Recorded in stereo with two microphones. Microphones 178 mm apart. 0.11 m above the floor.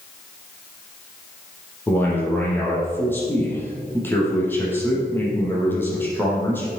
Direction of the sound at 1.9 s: 10° left (ahead or behind).